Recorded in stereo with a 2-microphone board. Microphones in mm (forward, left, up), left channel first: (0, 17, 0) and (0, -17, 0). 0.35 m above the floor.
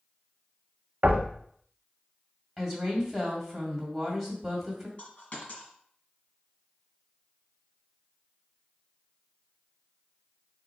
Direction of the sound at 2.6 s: 5° right (ahead or behind).